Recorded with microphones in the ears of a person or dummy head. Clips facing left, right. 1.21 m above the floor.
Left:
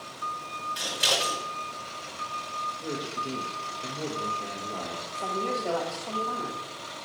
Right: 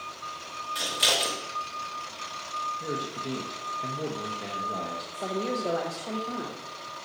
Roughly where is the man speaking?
Right.